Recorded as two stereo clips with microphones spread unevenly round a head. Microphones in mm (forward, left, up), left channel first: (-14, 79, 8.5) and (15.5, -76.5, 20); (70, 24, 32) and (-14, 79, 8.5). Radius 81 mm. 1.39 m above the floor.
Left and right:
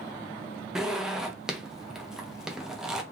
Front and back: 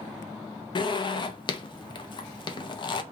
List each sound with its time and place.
0.8 s a zipper: 5° left, 0.5 m